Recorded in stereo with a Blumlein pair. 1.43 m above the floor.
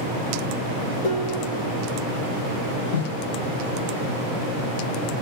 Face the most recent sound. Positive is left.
turn(degrees=65)